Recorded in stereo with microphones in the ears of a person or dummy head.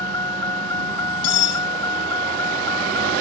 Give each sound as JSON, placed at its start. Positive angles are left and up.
{"t": 0.0, "sound": "a vehicle", "side_deg": 20}
{"t": 1.2, "sound": "cutlery clinking", "side_deg": 70}